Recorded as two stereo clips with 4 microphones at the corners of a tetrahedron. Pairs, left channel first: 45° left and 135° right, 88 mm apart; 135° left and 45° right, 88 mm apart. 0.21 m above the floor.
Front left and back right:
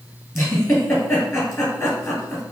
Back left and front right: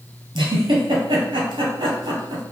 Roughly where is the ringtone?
No ringtone in this recording.